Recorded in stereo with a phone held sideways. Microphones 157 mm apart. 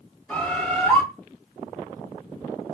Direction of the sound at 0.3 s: 10° left (ahead or behind).